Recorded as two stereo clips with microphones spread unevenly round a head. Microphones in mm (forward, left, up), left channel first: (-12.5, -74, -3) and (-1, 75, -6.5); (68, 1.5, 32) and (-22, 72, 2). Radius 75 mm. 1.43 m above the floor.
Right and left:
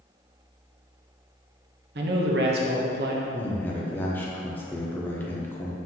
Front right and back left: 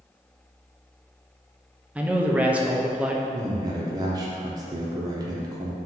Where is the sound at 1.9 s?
70° left, 0.7 m.